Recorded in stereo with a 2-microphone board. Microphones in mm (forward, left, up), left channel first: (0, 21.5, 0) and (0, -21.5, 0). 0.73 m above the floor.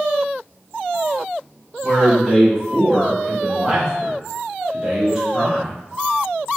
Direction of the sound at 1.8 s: Centre (ahead or behind).